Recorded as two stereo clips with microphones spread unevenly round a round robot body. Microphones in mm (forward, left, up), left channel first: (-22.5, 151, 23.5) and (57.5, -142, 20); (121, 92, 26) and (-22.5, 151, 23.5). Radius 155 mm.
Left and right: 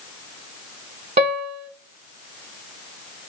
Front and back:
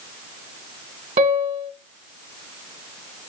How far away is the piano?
About 1.4 m.